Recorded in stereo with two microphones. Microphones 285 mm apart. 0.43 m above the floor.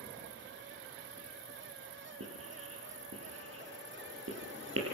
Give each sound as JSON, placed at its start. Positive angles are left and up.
{"t": 2.2, "sound": "writing", "side_deg": -50, "distance_m": 7.5}